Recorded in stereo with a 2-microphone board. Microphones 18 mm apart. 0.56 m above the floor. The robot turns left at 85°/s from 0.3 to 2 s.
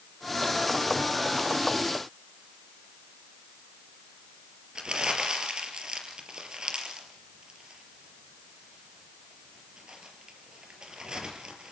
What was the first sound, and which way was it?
Crumpling, 50° right (ahead or behind).